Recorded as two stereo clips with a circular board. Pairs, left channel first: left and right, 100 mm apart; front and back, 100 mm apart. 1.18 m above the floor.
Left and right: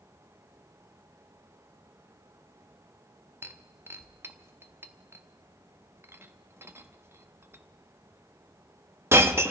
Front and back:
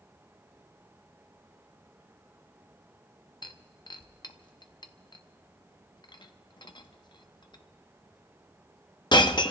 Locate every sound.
3.4 s breaking glass: 30° right, 0.8 m